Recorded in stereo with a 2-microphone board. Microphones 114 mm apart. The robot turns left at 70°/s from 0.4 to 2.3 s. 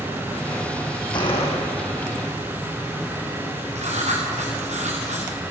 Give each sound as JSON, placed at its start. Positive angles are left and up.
{"t": 1.1, "sound": "a gunshot", "azimuth_deg": 140, "distance_m": 5.0}
{"t": 3.8, "sound": "writing", "side_deg": -85, "distance_m": 6.0}